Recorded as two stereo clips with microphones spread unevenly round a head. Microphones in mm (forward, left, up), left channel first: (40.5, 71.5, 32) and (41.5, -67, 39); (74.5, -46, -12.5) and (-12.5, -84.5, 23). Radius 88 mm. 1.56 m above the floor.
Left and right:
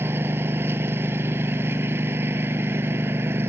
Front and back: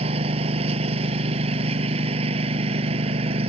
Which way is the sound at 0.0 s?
165° right.